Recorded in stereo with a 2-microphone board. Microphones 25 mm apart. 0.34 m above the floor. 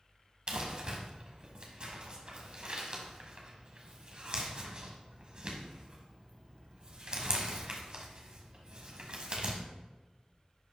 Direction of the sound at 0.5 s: 40° right (ahead or behind).